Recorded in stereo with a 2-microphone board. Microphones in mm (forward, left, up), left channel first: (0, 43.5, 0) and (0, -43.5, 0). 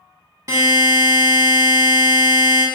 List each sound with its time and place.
0.5 s a buzzer: 40° right (ahead or behind), 0.8 m